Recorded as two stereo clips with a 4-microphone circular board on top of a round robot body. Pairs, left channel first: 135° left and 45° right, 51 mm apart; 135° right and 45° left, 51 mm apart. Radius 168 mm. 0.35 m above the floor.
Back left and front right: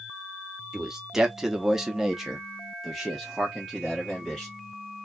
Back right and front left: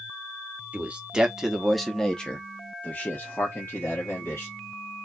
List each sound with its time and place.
0.7 s a man speaking: 20° left, 1.3 m; by 4.5 s 140° right, 2.0 m